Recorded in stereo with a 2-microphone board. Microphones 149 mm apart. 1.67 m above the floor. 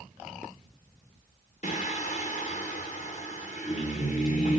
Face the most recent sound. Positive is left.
turn(degrees=50)  # may be behind; listen again after turning